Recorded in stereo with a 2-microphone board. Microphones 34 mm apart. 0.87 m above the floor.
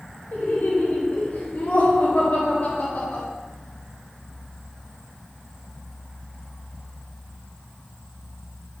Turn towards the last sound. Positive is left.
turn(degrees=65)  # may be behind; listen again after turning